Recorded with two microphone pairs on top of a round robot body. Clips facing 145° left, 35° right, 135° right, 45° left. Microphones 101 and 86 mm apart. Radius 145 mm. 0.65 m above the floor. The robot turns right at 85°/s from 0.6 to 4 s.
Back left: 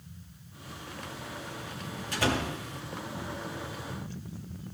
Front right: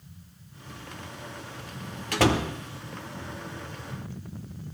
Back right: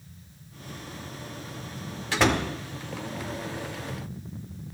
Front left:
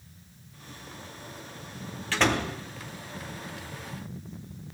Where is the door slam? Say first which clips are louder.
Front right 6 dB, back right 2 dB; 65° right, 1.3 m; by 2.5 s 30° right, 1.3 m.